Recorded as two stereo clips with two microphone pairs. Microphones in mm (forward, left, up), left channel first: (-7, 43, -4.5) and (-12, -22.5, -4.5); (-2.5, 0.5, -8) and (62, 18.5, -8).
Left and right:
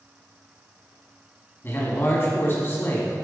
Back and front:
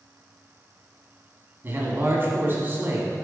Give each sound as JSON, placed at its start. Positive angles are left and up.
{"t": 1.6, "sound": "a man speaking", "azimuth_deg": 55, "distance_m": 1.3}